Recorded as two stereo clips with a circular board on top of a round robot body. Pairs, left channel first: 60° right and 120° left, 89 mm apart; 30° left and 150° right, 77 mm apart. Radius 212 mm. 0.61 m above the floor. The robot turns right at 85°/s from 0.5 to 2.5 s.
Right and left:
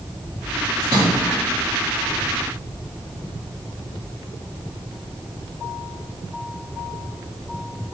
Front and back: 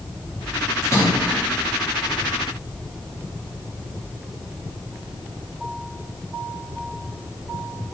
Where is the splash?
65° left, 4.5 m; by 1.4 s 120° left, 4.5 m.